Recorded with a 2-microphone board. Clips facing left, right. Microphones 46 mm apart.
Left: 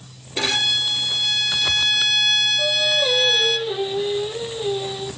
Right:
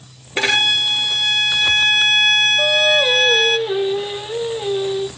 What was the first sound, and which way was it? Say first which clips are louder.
A violin: right 5 dB; 50° right (ahead or behind).